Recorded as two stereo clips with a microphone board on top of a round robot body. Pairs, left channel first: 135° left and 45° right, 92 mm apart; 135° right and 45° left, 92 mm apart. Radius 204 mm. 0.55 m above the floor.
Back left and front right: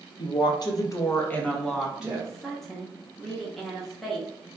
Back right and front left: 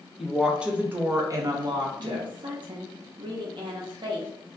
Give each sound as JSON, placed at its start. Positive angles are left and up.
{"t": 0.2, "sound": "a woman speaking", "azimuth_deg": 135, "distance_m": 1.0}
{"t": 2.0, "sound": "a woman speaking", "azimuth_deg": 50, "distance_m": 0.9}